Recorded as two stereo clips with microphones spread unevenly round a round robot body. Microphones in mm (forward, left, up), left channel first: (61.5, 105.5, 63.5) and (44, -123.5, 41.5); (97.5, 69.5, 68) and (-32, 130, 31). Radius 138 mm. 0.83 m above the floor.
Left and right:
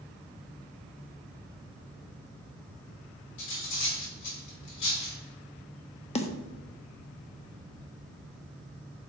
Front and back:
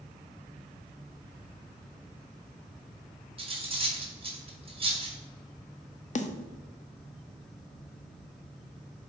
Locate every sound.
3.4 s cutlery clinking: 105° left, 1.9 m
6.2 s a snare drum: 20° left, 0.8 m